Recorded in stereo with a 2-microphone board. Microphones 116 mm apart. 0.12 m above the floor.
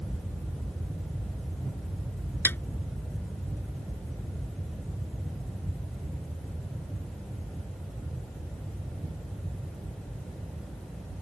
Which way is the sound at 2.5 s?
20° left (ahead or behind).